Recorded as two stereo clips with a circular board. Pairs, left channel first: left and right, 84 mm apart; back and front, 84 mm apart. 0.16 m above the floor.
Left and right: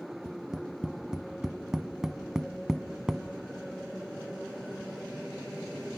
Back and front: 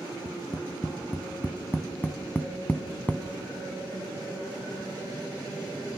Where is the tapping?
160° right, 0.7 m.